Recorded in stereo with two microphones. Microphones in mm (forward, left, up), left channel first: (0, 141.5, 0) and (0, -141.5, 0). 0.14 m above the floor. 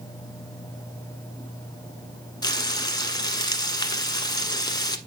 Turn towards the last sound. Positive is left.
turn(degrees=15)  # may be behind; listen again after turning